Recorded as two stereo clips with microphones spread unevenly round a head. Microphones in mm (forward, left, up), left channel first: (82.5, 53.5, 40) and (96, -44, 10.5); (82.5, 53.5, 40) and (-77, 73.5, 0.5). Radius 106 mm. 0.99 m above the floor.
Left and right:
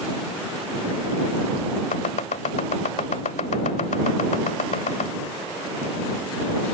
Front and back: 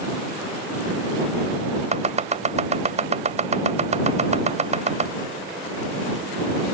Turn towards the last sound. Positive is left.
turn(degrees=125)